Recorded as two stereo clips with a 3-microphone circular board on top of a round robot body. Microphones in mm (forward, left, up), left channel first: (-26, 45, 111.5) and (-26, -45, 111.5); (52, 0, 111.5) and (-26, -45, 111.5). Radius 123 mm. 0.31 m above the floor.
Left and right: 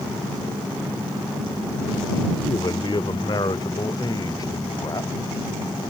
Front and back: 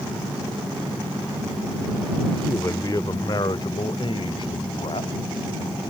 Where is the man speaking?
85° left; by 5.2 s 40° left.